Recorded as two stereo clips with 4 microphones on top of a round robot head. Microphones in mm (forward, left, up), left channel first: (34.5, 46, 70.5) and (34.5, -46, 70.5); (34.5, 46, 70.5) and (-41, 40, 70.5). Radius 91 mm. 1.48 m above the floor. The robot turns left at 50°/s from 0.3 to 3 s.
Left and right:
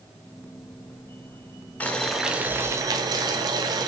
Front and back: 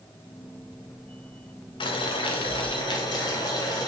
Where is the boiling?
15° left, 1.0 m; by 3.9 s 45° right, 1.0 m.